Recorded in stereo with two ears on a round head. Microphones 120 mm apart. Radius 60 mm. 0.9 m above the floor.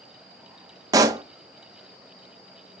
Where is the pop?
25° right (ahead or behind), 0.6 m.